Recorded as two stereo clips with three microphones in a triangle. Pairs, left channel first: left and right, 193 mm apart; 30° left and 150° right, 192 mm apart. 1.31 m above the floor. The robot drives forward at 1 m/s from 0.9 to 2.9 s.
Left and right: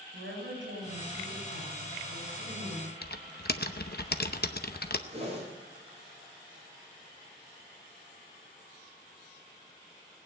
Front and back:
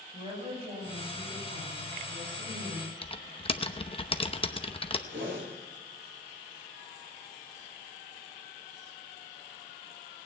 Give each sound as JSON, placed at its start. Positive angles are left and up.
{"t": 0.1, "sound": "a woman speaking", "azimuth_deg": -90, "distance_m": 6.5}
{"t": 3.0, "sound": "typing on a keyboard", "azimuth_deg": 85, "distance_m": 0.7}
{"t": 5.1, "sound": "a whoosh", "azimuth_deg": -145, "distance_m": 5.0}